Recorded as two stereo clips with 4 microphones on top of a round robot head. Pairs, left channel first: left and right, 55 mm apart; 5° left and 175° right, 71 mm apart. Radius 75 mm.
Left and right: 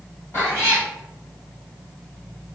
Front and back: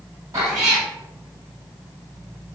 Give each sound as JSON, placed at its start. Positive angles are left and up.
{"t": 0.3, "sound": "a cat meowing", "azimuth_deg": 145, "distance_m": 2.5}